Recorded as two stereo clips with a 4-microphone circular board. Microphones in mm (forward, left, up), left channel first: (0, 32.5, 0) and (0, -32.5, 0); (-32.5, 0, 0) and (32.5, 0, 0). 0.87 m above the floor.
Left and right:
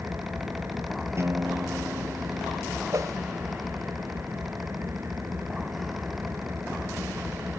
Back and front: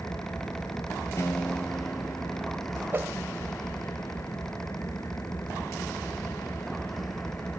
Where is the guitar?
135° right.